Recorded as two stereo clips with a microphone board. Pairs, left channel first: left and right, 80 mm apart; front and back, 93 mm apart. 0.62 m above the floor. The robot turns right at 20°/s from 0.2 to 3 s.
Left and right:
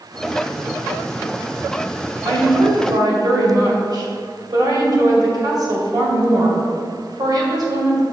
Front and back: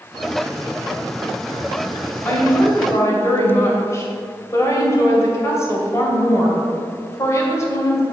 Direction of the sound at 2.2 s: 70° right.